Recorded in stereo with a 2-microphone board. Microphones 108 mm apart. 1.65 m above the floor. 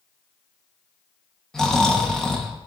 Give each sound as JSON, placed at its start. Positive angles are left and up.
{"t": 1.5, "sound": "snoring", "side_deg": 5, "distance_m": 1.3}